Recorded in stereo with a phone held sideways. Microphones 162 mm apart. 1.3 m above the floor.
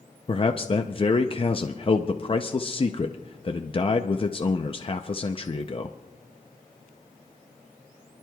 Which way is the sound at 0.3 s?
35° left (ahead or behind).